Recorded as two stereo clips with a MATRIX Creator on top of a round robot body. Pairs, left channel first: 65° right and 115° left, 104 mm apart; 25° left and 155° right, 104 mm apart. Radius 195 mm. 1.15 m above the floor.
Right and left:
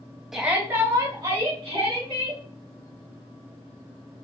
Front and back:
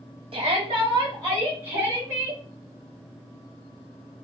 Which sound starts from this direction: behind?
A shout, at 0.3 s.